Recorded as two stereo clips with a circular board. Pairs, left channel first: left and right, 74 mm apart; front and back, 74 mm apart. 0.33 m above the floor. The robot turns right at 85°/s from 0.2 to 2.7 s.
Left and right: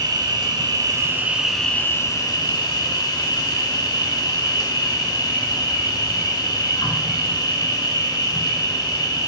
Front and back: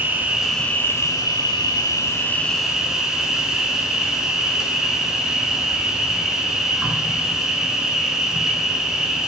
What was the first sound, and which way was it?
An insect, 115° right.